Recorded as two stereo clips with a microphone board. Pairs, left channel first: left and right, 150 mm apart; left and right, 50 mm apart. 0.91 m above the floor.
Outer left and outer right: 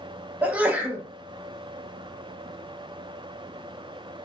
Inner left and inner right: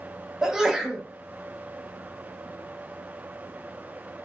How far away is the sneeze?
About 0.9 m.